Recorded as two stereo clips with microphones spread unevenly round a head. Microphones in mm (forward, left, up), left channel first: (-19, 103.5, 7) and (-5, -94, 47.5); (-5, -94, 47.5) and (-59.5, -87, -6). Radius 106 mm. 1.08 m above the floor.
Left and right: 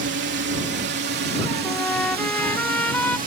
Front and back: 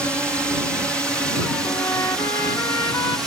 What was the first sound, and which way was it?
A drone, 115° right.